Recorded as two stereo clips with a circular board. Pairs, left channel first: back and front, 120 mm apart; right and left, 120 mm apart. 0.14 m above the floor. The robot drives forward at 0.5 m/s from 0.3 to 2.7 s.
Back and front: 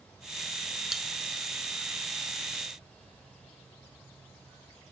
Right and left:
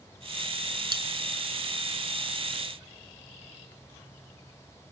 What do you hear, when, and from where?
0.9 s cutlery clinking: 85° left, 0.9 m; by 1.1 s 95° left, 0.9 m